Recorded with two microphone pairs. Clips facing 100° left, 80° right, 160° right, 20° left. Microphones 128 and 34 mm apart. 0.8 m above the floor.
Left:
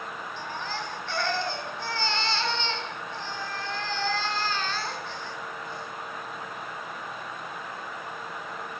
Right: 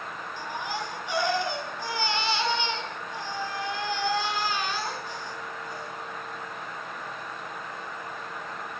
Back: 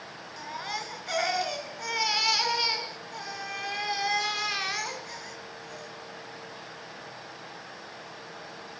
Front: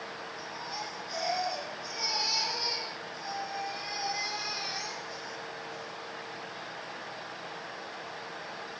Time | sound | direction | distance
0.4 | a baby crying | 160° right | 3.5 m